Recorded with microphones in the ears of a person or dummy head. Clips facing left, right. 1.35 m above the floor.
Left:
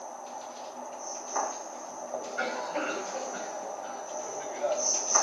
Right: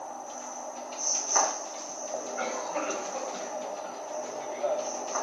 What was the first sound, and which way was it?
A cough, centre (ahead or behind).